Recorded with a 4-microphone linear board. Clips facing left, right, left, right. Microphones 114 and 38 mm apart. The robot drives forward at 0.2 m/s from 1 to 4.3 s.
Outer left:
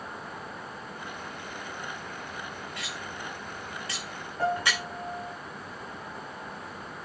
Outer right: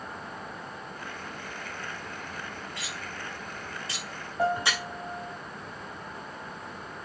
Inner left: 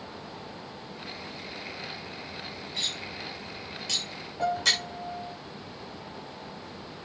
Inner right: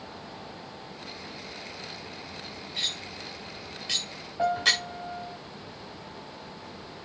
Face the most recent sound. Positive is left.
turn(degrees=-25)  # may be behind; listen again after turning